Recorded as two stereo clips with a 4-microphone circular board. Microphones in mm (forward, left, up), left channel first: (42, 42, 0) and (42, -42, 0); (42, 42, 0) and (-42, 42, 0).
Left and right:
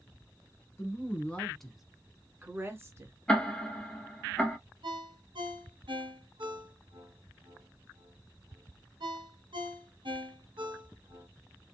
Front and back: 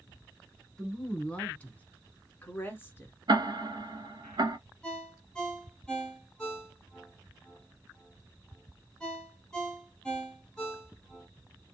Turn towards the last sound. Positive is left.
turn(degrees=-80)